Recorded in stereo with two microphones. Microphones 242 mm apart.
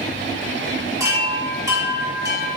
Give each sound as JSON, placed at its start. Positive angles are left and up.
{"t": 1.0, "sound": "a chime", "side_deg": -15, "distance_m": 2.0}